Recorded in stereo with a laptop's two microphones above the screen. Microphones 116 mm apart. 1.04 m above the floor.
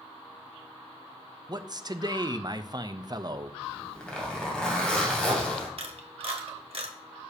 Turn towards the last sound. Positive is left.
turn(degrees=-55)  # may be behind; listen again after turning